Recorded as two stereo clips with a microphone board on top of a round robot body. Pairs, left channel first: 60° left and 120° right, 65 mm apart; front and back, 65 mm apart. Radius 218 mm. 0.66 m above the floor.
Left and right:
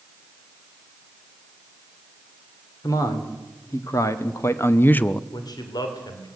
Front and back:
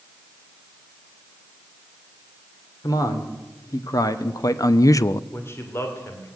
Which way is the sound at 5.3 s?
55° left.